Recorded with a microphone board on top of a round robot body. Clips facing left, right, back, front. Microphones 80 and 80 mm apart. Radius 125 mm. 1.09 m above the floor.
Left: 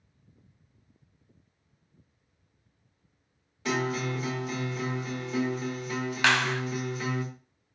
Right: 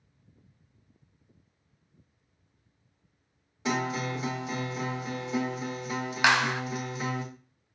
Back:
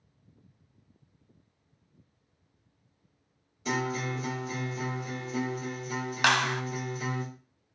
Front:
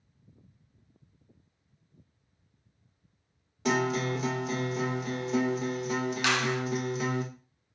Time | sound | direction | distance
3.6 | a guitar | 20° right | 0.7 m
6.2 | a clap | 160° right | 0.6 m